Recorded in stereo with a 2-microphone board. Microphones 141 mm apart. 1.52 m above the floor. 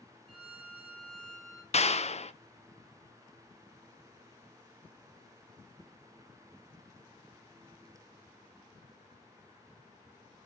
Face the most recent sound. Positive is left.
turn(degrees=50)  # may be behind; listen again after turning